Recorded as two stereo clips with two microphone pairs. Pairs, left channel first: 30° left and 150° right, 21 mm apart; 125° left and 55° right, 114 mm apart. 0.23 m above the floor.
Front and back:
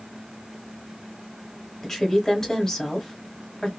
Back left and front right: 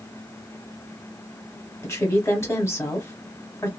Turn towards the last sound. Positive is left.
turn(degrees=75)